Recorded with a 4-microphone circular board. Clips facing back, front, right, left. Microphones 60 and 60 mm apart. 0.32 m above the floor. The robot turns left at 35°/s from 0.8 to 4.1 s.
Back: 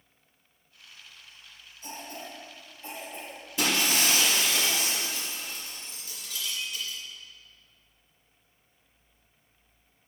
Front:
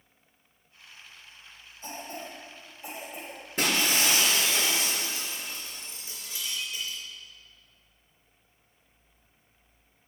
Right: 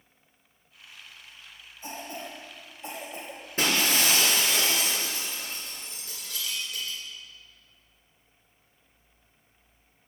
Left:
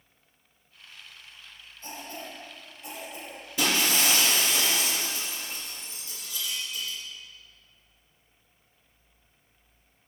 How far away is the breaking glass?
About 2.5 m.